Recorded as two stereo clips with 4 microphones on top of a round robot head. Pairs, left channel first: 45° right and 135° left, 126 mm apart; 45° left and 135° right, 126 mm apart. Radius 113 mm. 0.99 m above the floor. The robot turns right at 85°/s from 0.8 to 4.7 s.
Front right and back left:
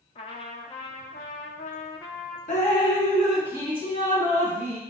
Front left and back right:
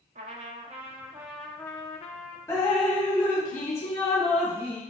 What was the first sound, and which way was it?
A trumpet, 95° right.